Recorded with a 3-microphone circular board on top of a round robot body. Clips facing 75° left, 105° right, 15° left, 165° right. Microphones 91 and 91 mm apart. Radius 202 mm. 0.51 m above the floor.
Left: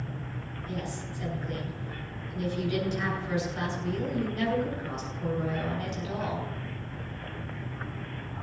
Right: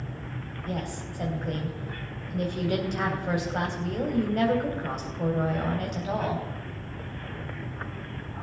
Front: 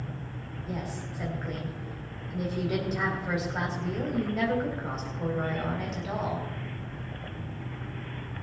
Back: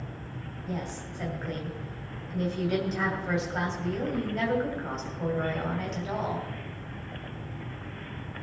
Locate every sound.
0.7 s a woman speaking: 70° right, 2.5 m